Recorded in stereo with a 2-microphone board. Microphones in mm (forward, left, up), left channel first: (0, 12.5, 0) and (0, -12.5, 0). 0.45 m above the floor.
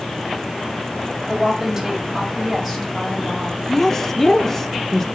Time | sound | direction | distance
1.3 | a woman speaking | 20° right (ahead or behind) | 2 m
3.7 | a woman speaking | 15° left (ahead or behind) | 0.7 m